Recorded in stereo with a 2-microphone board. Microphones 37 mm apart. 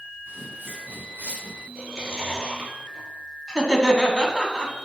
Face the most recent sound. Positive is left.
turn(degrees=10)  # may be behind; listen again after turning